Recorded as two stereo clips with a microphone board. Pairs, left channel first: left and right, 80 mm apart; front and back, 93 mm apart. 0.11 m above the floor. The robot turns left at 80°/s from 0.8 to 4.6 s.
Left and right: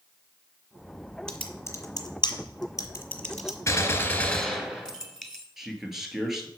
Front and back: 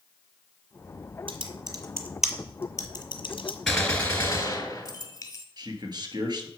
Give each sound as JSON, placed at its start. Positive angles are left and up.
{"t": 1.3, "sound": "typing on a keyboard", "azimuth_deg": 170, "distance_m": 1.2}
{"t": 3.7, "sound": "a gunshot", "azimuth_deg": 85, "distance_m": 1.5}
{"t": 5.6, "sound": "a man speaking", "azimuth_deg": -175, "distance_m": 1.7}